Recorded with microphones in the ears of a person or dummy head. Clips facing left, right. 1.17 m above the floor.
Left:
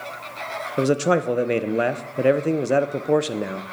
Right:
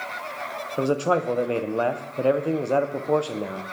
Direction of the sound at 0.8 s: 20° left (ahead or behind).